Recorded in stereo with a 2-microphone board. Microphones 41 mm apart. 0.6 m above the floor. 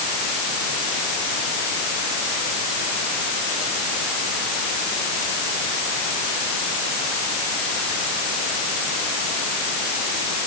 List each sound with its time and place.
Only background noise.